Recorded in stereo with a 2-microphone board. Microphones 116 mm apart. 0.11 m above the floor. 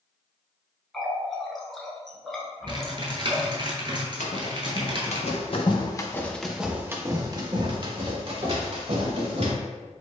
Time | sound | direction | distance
0.9 | a running tap | centre (ahead or behind) | 0.9 m
2.7 | typing on a keyboard | 40° right (ahead or behind) | 0.8 m
4.2 | running footsteps | 80° left | 1.7 m